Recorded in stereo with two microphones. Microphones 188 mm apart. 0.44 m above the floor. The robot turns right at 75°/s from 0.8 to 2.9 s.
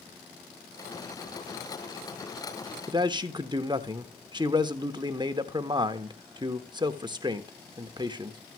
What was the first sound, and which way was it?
A man speaking, 25° right (ahead or behind).